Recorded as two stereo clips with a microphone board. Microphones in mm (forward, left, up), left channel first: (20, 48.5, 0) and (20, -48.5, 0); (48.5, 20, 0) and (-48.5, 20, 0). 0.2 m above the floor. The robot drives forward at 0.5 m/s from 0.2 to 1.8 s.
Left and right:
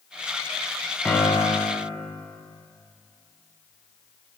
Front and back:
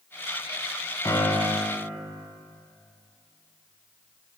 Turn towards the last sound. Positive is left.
turn(degrees=30)